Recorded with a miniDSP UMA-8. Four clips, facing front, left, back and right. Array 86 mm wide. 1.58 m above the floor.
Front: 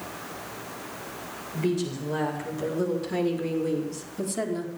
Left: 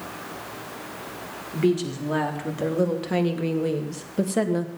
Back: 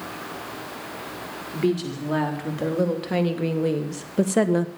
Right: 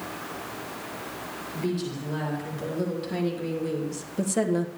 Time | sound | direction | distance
1.5 | a woman speaking | 130° left | 4.5 m